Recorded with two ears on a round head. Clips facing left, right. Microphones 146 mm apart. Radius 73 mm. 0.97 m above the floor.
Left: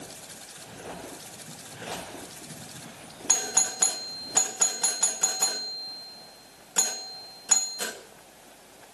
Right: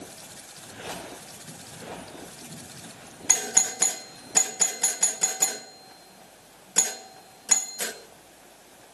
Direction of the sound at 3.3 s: 20° right (ahead or behind).